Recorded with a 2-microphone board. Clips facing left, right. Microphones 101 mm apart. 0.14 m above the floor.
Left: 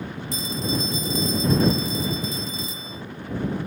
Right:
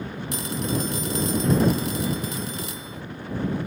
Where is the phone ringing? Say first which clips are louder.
Even; 65° right (ahead or behind).